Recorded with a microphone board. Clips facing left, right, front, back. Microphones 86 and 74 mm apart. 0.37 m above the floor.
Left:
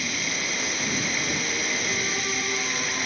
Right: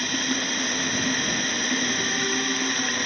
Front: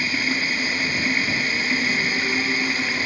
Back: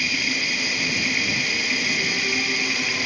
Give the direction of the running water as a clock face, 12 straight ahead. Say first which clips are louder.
Right 4 dB, front 2 dB; 2 o'clock.